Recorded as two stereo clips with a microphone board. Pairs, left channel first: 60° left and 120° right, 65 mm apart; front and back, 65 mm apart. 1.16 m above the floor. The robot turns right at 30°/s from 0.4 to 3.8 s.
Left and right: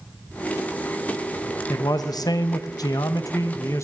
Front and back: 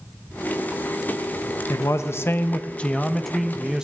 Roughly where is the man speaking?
Ahead left.